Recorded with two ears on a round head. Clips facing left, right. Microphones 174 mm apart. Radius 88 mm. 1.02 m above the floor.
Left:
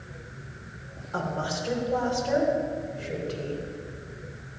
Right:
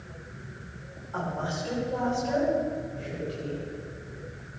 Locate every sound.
1.1 s a woman speaking: 40° left (ahead or behind), 3.5 m; by 3.6 s 60° left (ahead or behind), 4 m